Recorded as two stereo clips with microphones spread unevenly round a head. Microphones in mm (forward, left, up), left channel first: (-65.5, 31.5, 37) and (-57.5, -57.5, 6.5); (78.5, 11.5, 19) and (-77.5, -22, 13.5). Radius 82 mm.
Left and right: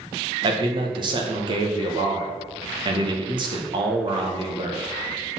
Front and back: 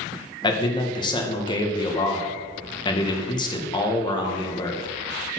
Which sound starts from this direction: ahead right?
A man speaking, at 0.4 s.